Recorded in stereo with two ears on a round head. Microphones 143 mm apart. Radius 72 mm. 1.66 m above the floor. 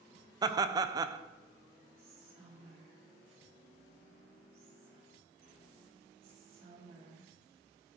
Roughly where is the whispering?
Right.